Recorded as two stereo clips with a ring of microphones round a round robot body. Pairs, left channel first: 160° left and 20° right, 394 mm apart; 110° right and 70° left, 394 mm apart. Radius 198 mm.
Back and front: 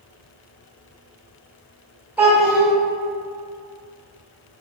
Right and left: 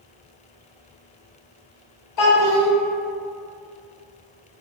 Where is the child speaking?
110° right, 1.2 m.